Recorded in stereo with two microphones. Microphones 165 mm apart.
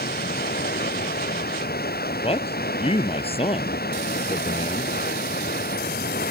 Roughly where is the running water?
Left.